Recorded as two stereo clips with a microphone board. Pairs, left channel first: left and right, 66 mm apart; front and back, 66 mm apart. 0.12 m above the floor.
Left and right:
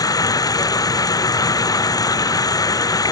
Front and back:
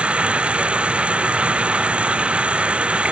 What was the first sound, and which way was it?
Running water, 105° left.